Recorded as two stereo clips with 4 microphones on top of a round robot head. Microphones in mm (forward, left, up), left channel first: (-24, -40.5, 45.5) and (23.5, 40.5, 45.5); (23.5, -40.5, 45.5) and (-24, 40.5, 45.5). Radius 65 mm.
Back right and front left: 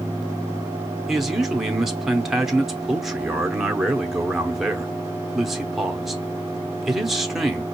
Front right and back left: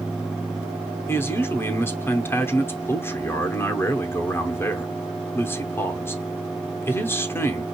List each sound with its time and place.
1.1 s a man speaking: 25° right, 0.8 m